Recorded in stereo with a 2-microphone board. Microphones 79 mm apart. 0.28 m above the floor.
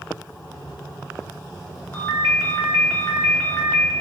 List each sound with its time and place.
1.9 s a ringtone: 25° left (ahead or behind), 0.7 m